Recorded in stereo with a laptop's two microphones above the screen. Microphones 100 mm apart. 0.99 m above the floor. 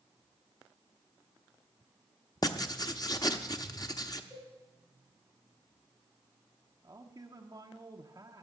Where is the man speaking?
40° right (ahead or behind), 0.7 m.